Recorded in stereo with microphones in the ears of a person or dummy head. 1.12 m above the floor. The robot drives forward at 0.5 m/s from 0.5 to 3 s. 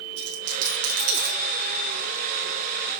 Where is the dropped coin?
80° right, 6.5 m.